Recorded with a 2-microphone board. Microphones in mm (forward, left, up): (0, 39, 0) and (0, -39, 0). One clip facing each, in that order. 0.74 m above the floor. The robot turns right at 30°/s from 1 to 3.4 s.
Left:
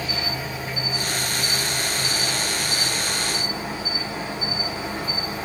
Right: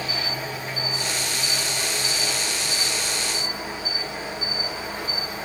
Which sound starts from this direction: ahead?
An insect, at 0.0 s.